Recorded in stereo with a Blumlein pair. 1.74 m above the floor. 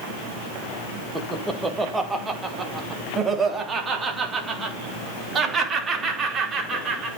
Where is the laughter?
5° right, 2.0 m; by 7.1 s 20° right, 5 m.